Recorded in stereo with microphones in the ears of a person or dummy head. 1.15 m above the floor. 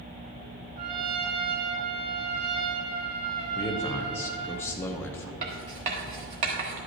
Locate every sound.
0.8 s a trumpet: 25° right (ahead or behind), 0.9 m
3.5 s a man speaking: 15° left (ahead or behind), 0.8 m
5.4 s writing: 30° right (ahead or behind), 1.0 m